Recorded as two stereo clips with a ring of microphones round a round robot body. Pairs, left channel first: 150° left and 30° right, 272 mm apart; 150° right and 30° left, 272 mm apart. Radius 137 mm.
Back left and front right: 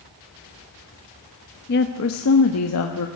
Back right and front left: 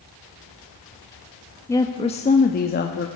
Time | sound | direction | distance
1.7 | a woman speaking | 135° left | 0.8 m